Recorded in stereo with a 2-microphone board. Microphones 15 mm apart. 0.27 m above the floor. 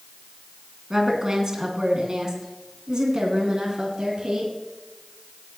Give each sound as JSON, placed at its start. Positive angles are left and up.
{"t": 0.9, "sound": "a woman speaking", "side_deg": -35, "distance_m": 2.5}